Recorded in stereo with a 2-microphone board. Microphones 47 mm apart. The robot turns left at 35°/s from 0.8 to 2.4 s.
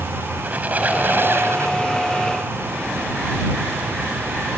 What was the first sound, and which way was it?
A squeak, 35° right.